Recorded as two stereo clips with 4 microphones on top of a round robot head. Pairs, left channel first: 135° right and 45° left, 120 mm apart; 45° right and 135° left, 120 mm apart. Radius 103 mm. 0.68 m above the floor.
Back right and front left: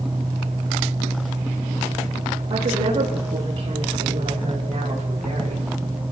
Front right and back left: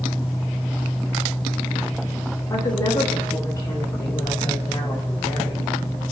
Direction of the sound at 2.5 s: 10° left.